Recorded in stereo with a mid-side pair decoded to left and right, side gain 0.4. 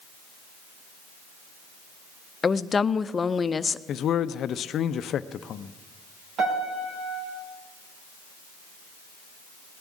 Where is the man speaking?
70° left, 0.6 m.